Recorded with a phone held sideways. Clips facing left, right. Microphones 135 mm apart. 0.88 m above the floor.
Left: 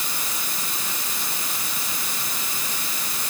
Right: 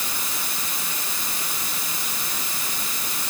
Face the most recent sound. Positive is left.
No sound to turn to.